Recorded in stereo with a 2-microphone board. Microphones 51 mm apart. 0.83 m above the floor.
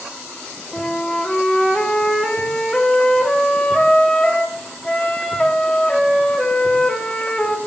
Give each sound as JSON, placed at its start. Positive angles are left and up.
{"t": 0.7, "sound": "a flute", "side_deg": 15, "distance_m": 0.6}